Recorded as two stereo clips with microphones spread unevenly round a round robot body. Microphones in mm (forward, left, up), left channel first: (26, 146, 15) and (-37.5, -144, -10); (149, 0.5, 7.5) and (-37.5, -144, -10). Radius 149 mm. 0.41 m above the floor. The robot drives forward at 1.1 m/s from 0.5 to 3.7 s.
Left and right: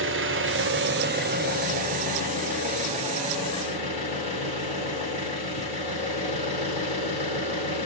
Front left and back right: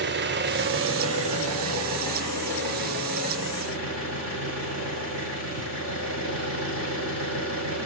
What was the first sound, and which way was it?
An engine running, 130° right.